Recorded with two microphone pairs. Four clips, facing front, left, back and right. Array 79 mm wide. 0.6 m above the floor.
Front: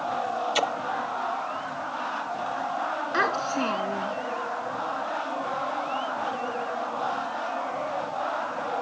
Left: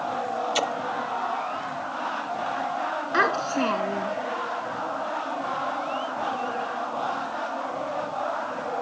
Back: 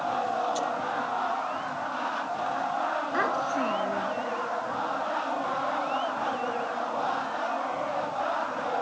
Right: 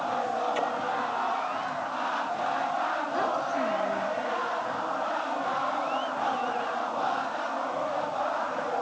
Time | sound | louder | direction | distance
0.6 | a splash | left 2 dB, front 3 dB | 25° left | ?
3.1 | a child speaking | left 7 dB, front 3 dB | 70° left | ?